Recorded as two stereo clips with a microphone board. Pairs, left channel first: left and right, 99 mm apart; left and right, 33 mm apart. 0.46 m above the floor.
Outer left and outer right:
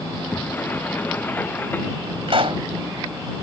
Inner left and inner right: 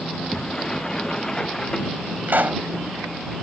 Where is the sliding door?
20° left (ahead or behind).